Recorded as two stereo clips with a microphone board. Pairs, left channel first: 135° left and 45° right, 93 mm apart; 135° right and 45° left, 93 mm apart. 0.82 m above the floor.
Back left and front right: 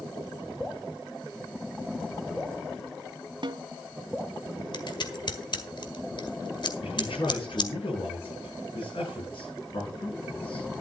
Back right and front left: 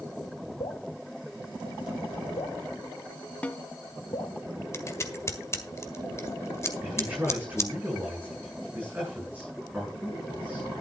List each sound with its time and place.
0.6 s dripping: 140° right, 1.6 m
3.4 s a snare drum: 60° right, 0.7 m
4.7 s scissors: 165° left, 1.7 m
6.8 s a man speaking: 120° left, 9.5 m